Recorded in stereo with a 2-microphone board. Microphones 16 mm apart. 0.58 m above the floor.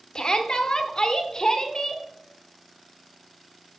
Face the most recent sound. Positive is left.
turn(degrees=45)  # may be behind; listen again after turning